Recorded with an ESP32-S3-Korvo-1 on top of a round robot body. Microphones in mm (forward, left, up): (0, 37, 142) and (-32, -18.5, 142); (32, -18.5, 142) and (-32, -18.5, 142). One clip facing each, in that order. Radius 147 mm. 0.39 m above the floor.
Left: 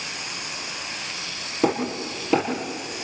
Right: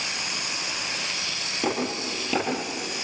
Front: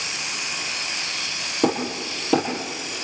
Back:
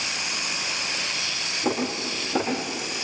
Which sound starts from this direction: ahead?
Hammering, at 1.6 s.